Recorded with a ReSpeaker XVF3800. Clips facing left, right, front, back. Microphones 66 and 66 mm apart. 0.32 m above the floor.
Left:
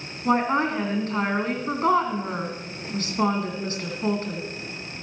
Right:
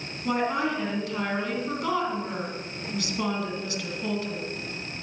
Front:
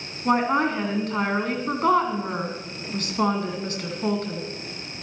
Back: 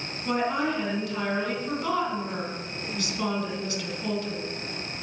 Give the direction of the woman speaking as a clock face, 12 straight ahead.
11 o'clock.